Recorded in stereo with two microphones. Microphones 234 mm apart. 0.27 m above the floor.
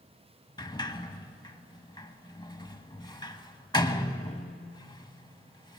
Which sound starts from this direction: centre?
A sliding door, at 0.6 s.